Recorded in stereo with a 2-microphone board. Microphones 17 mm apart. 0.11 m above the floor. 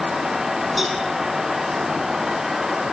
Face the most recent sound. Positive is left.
turn(degrees=-10)  # may be behind; listen again after turning